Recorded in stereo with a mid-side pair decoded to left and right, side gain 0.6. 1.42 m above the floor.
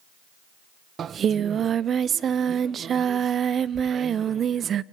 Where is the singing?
40° right, 0.7 m.